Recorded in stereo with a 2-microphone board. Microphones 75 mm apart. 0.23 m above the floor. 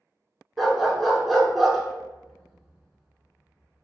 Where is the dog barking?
Centre (ahead or behind), 0.6 m.